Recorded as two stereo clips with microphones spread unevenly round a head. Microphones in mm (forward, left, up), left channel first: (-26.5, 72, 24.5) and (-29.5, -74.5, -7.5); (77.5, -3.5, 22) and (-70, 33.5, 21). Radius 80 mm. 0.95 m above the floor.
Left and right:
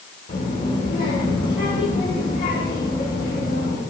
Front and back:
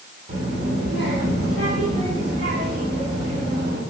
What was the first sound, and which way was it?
A child speaking, 120° left.